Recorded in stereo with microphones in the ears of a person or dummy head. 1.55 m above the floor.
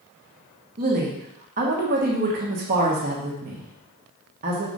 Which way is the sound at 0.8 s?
45° right (ahead or behind).